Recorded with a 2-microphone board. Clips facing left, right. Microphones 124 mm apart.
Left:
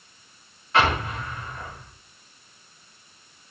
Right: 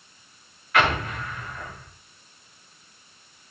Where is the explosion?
30° left (ahead or behind), 8 m.